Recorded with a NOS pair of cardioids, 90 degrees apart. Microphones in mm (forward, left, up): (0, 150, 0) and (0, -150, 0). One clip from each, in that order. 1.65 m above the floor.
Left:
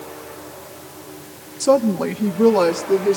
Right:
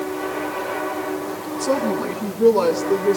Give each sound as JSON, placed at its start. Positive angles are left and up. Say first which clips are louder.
{"t": 1.6, "sound": "a woman speaking", "louder": "left 5 dB", "azimuth_deg": 50, "distance_m": 2.5}